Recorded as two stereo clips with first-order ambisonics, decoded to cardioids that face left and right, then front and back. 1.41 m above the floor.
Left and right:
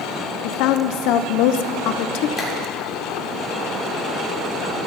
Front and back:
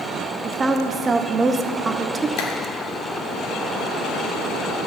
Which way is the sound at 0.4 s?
105° left.